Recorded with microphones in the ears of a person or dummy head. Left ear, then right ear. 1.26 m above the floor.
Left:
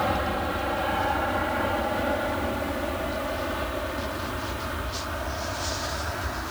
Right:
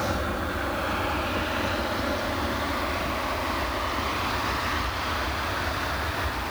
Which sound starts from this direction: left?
An aircraft, at 0.0 s.